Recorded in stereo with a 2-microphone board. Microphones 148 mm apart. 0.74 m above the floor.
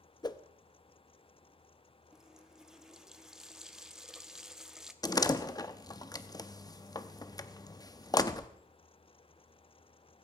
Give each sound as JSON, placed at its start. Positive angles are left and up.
{"t": 0.2, "sound": "a whoosh", "side_deg": 30, "distance_m": 0.6}
{"t": 2.1, "sound": "a running tap", "side_deg": -5, "distance_m": 0.8}
{"t": 5.0, "sound": "a door slam", "side_deg": 25, "distance_m": 0.6}